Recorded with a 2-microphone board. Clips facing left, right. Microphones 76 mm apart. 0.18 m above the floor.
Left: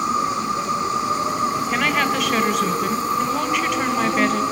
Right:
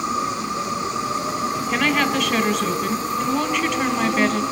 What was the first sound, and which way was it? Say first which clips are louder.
An insect: left 3 dB; 45° left (ahead or behind).